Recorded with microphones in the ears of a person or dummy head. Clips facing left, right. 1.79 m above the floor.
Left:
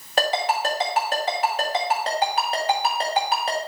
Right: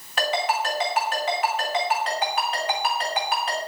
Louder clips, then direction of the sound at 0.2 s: Left 2 dB; 35° left (ahead or behind).